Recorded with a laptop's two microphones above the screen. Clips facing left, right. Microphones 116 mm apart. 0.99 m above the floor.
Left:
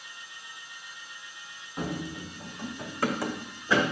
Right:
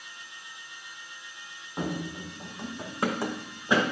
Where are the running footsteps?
30° right (ahead or behind), 1.9 m; by 3.8 s 20° right (ahead or behind), 3 m.